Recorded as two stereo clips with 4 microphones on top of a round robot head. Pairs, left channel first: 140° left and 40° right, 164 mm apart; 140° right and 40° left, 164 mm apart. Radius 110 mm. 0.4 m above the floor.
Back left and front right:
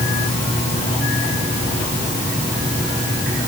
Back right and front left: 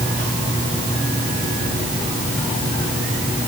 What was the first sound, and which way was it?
Only background noise.